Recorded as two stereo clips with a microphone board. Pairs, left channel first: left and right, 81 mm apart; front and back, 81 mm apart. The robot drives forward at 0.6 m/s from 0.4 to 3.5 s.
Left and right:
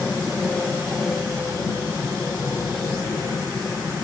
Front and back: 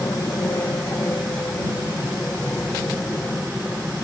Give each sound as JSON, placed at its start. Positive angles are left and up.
{"t": 0.0, "sound": "an aircraft", "azimuth_deg": 25}